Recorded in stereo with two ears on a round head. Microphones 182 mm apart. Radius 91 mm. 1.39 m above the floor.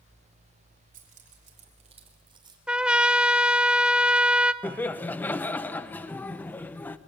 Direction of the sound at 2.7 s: 5° right (ahead or behind).